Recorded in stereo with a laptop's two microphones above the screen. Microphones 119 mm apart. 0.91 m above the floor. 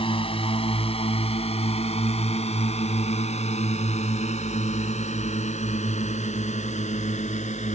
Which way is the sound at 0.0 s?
50° left (ahead or behind).